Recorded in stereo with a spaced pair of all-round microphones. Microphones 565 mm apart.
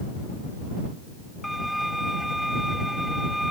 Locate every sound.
1.4 s a violin: centre (ahead or behind)